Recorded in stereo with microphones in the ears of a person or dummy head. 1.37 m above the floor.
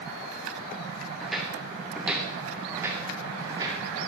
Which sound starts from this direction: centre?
Footsteps, at 1.2 s.